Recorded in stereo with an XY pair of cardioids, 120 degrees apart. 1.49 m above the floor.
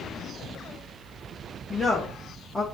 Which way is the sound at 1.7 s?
15° left.